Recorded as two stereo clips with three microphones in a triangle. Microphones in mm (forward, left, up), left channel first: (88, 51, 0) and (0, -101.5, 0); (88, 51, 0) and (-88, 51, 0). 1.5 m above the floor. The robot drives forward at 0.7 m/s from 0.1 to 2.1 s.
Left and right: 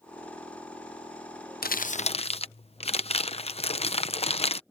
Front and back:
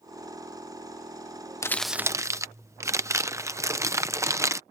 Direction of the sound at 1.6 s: 75° left.